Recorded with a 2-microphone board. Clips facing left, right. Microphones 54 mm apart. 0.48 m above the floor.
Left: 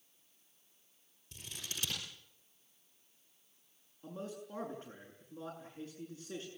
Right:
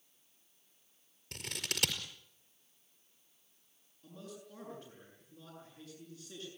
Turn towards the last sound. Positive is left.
turn(degrees=50)  # may be behind; listen again after turning